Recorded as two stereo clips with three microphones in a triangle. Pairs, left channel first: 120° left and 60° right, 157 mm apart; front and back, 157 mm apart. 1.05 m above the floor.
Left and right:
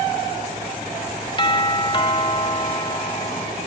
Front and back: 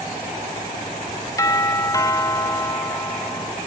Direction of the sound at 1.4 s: 65° left.